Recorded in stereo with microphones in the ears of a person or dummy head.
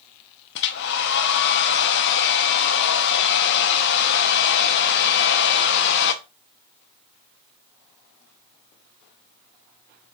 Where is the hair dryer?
60° left (ahead or behind), 0.9 m.